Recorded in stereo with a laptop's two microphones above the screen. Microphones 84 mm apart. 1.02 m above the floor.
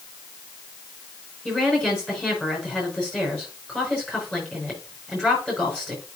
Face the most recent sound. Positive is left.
turn(degrees=15)  # may be behind; listen again after turning